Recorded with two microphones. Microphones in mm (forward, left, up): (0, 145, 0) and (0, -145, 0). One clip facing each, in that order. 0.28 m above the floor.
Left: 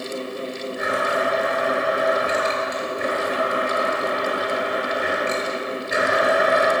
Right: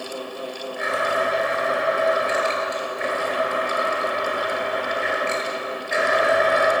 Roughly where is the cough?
No cough in this recording.